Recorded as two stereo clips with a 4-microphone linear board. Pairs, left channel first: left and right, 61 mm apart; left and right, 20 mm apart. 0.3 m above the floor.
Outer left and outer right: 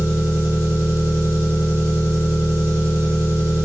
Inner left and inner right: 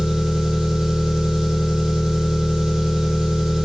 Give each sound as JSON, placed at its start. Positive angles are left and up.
{"t": 0.0, "sound": "an engine running", "side_deg": -45, "distance_m": 1.4}